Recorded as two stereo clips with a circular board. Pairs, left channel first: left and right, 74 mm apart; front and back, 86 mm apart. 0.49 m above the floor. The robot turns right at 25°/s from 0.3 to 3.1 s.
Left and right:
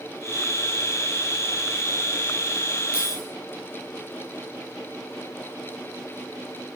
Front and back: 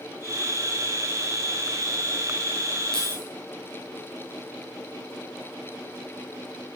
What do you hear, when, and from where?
2.9 s keys jangling: 15° right, 7 m; by 3.2 s 10° right, 7 m